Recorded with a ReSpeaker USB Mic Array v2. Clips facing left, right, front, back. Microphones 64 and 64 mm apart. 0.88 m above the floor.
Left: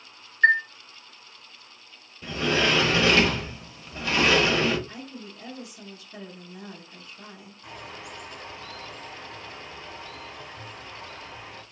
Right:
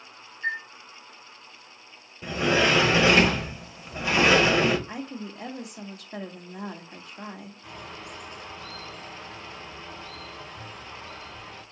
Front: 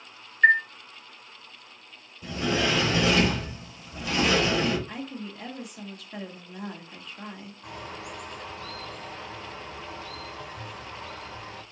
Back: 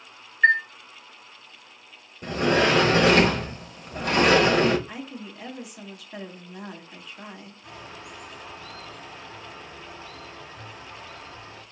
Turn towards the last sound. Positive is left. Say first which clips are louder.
# left 2 dB, front 4 dB
turn(degrees=15)